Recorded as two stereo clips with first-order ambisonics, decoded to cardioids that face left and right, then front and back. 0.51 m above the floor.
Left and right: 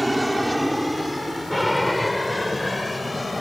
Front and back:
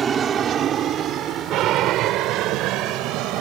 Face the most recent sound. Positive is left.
turn(degrees=170)